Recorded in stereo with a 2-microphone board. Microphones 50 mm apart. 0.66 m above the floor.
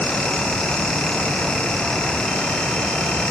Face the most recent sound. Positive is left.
No sound to turn to.